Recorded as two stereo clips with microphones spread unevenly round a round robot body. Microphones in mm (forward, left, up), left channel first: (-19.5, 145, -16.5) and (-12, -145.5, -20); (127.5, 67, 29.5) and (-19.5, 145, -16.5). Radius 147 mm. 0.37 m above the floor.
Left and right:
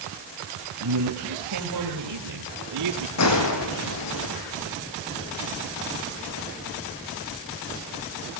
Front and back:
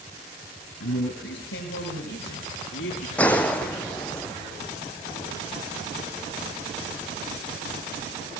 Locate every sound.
0.8 s a man speaking: 60° right, 6 m; by 3.1 s 70° right, 6.5 m
3.2 s a gunshot: 50° left, 3 m